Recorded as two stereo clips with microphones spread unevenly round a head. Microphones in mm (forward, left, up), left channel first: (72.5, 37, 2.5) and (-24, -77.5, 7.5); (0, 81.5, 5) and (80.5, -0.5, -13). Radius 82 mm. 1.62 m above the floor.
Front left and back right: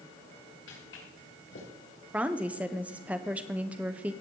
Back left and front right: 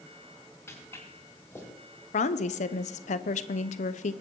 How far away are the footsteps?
About 7.5 m.